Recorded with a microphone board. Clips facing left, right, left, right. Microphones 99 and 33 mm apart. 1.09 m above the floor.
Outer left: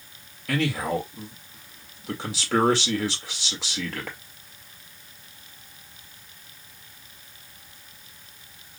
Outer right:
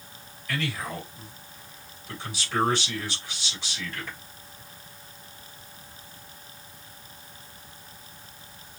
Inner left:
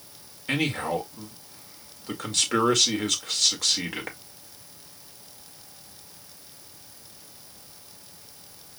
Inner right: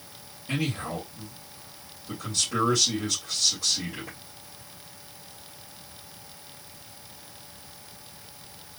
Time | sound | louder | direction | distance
0.5 | a man speaking | outer left 7 dB, inner left 4 dB | 80° left | 1.7 m